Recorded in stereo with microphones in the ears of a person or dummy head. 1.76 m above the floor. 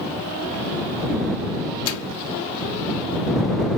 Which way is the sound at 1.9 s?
70° left (ahead or behind).